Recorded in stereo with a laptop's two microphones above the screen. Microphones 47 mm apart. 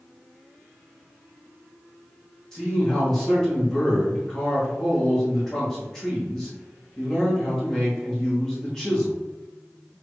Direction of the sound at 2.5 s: 10° left (ahead or behind).